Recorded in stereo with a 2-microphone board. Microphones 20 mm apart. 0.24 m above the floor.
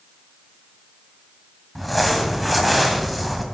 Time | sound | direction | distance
1.8 | crumpling | centre (ahead or behind) | 1.8 m